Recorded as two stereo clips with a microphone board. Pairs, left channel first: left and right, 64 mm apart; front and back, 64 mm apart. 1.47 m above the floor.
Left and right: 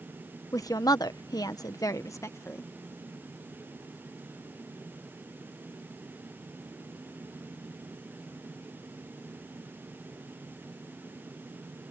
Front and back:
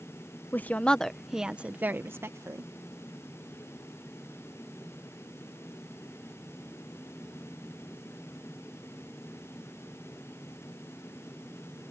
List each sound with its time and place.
0.5 s a woman speaking: 60° left; by 2.7 s 140° left